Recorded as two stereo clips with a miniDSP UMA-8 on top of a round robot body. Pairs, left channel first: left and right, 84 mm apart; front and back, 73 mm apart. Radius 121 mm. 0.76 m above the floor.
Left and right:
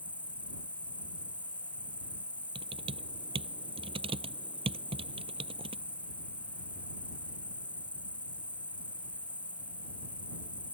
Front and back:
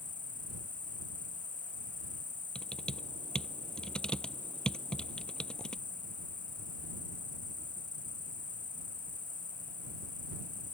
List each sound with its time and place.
0.0 s an insect: 15° left
2.5 s typing on a keyboard: 80° right